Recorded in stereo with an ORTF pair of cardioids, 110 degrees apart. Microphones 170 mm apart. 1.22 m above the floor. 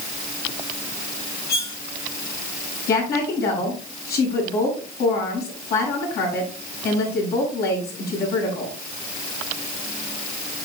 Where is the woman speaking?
70° left, 7.5 m.